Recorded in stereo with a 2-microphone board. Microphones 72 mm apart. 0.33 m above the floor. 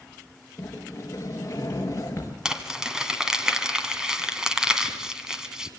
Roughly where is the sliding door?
Left.